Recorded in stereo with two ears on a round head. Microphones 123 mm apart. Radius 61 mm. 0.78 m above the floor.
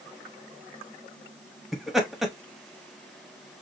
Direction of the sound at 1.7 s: Centre (ahead or behind).